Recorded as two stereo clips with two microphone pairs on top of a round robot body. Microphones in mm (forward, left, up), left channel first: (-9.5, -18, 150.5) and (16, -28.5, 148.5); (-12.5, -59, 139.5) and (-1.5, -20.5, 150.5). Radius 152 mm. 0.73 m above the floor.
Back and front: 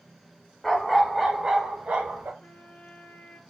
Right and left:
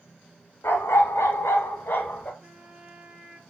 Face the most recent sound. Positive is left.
turn(degrees=145)